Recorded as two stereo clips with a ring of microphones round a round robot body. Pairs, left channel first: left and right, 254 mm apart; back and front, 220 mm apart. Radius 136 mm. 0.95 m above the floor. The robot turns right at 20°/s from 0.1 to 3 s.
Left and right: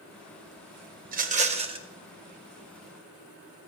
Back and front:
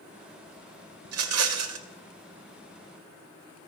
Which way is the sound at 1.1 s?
35° right.